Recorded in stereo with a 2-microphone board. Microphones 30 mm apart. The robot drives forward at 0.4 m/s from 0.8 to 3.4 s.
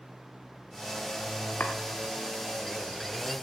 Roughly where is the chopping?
Left.